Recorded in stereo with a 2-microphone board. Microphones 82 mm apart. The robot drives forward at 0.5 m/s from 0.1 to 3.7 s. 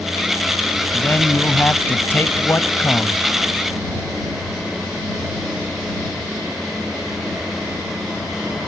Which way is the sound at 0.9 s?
20° left (ahead or behind).